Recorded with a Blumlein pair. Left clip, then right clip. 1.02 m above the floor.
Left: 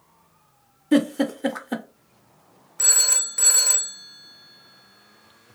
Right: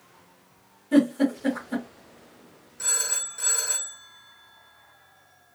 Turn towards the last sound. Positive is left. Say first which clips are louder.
# left 7 dB
turn(degrees=40)